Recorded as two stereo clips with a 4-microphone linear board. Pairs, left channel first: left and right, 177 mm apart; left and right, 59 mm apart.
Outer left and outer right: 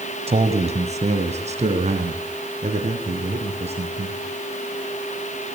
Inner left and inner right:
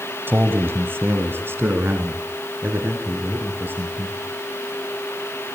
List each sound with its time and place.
0.3 s a man speaking: 35° right (ahead or behind), 1.8 m